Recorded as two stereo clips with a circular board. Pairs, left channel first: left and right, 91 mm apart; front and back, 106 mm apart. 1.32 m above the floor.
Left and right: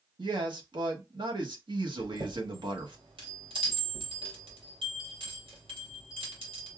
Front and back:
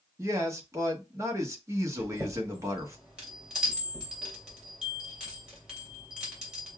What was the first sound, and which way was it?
A man speaking, 120° right.